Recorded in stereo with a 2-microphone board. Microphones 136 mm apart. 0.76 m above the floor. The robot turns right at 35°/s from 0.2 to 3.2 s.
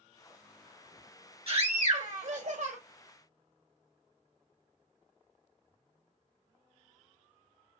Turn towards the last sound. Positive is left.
turn(degrees=-65)